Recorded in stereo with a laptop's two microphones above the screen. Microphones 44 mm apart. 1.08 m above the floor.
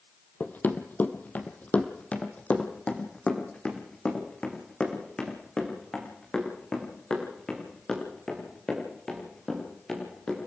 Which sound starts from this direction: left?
Running footsteps, at 0.4 s.